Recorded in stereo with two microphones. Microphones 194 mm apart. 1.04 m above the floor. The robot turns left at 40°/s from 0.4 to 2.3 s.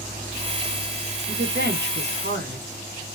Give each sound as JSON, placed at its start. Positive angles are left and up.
{"t": 1.3, "sound": "a woman speaking", "azimuth_deg": -60, "distance_m": 1.4}